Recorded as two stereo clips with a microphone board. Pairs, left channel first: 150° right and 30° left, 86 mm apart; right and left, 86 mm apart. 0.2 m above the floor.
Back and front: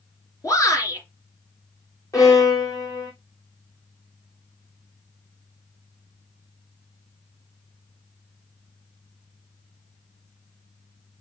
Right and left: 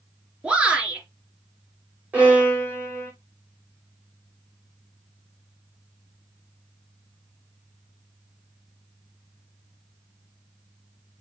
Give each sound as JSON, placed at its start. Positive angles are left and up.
{"t": 0.4, "sound": "a shout", "azimuth_deg": 165, "distance_m": 3.0}
{"t": 2.1, "sound": "a violin", "azimuth_deg": 160, "distance_m": 4.5}